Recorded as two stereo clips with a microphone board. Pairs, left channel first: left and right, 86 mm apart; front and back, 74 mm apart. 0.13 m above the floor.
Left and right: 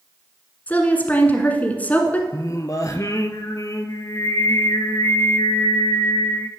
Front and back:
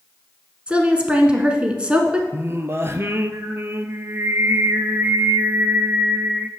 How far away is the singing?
About 0.7 m.